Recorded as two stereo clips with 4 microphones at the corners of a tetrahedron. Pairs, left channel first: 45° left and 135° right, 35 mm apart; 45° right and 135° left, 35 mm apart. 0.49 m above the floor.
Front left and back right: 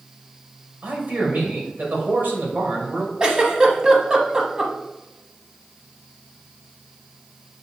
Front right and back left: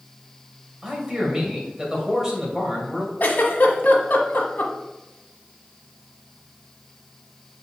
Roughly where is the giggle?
Ahead right.